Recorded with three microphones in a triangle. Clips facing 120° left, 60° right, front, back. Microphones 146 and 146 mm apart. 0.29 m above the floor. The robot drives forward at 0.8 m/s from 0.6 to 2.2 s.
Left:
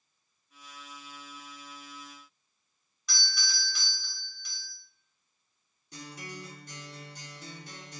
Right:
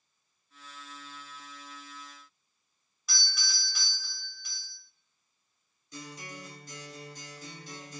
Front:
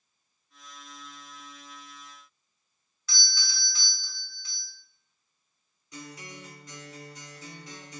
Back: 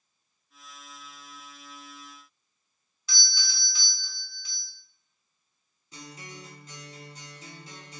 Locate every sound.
3.1 s a doorbell: 140° right, 1.5 m
5.9 s a guitar: 125° left, 1.2 m